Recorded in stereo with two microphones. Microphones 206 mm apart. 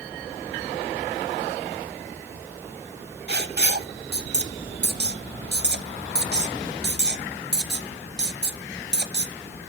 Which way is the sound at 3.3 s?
55° right (ahead or behind).